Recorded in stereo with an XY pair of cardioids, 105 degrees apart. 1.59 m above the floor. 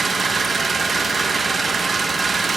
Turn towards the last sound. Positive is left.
turn(degrees=-35)